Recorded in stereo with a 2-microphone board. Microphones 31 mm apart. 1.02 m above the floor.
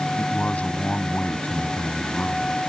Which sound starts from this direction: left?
A man speaking, at 0.2 s.